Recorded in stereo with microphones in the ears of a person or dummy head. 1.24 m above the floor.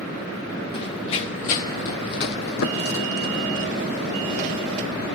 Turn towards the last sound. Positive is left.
turn(degrees=75)  # may be behind; listen again after turning